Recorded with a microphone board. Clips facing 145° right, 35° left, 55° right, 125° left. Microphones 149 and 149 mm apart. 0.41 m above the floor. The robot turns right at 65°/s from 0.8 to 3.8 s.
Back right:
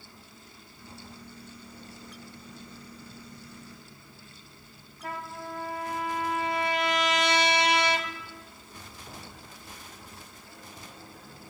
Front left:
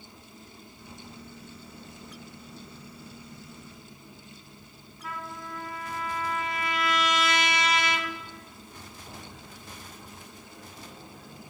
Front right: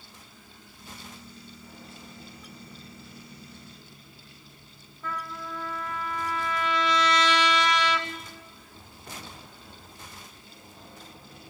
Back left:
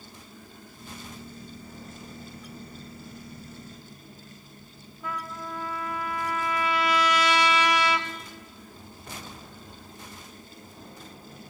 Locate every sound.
5.0 s a trumpet: 160° right, 3 m